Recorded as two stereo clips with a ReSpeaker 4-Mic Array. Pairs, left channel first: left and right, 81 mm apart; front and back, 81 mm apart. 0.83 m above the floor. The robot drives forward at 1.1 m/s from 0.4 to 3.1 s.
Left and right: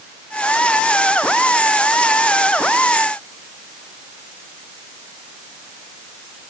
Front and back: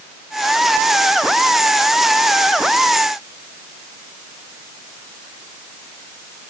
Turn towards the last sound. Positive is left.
No sound to turn to.